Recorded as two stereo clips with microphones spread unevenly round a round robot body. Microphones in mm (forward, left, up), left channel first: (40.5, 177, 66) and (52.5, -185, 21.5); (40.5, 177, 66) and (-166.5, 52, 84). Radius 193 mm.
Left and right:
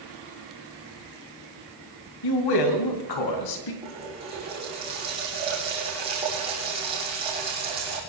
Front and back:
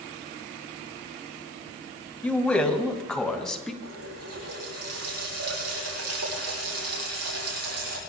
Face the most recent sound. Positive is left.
turn(degrees=-165)